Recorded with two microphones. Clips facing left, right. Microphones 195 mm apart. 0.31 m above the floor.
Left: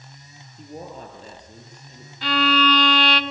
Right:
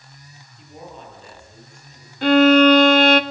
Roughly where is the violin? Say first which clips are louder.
Right 11 dB; right.